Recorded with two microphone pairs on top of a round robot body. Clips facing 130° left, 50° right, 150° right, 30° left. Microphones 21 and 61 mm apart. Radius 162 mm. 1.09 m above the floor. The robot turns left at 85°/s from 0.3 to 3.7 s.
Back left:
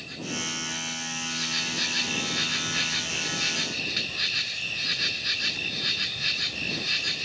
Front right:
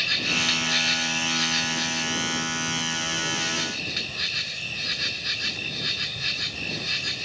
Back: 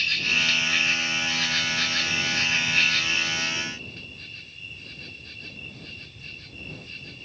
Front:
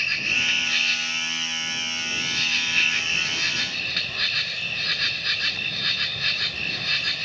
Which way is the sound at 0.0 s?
30° right.